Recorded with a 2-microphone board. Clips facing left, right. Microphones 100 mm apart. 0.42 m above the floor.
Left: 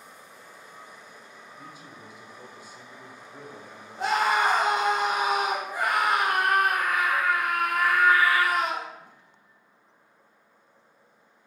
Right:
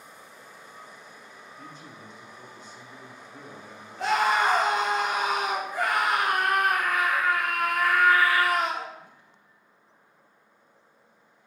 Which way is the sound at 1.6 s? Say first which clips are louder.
Right 1 dB; 10° left (ahead or behind).